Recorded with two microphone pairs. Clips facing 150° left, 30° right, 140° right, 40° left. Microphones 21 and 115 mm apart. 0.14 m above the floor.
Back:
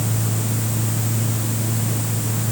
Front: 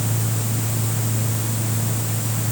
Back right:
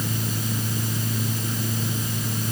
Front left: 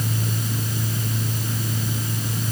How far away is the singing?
No singing in this recording.